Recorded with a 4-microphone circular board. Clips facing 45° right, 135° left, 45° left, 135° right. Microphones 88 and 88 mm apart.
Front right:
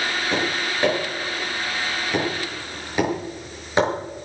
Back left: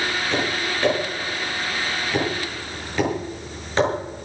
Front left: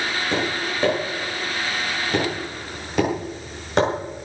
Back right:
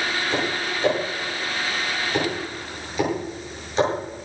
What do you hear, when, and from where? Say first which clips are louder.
0.3 s tapping: even, front left 1 dB; 30° left, 8 m